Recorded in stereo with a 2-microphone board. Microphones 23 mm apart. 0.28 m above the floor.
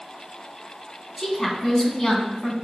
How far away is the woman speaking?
About 1.9 m.